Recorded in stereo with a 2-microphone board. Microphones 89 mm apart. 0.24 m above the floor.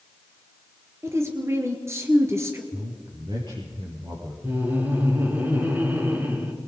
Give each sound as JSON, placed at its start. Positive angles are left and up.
{"t": 1.0, "sound": "a woman speaking", "side_deg": -35, "distance_m": 3.5}
{"t": 2.7, "sound": "a man speaking", "side_deg": -65, "distance_m": 5.5}
{"t": 4.4, "sound": "laughter", "side_deg": -20, "distance_m": 4.0}